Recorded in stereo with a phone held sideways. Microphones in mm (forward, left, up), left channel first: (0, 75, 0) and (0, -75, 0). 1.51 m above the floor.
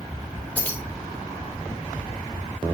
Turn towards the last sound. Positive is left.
turn(degrees=10)  # may be behind; listen again after turning